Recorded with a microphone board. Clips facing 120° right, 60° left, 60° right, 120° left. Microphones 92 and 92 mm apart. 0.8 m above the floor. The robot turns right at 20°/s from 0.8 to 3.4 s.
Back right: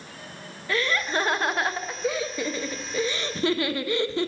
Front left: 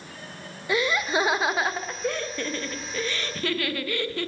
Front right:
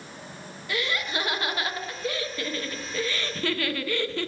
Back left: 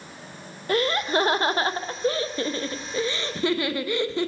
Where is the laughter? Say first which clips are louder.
Front left 2 dB, back left 7 dB; 130° left, 0.5 m; by 4.3 s straight behind, 0.5 m.